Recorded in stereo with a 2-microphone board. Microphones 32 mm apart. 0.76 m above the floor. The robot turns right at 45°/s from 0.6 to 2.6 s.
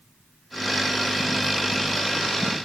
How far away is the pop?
I don't hear a pop.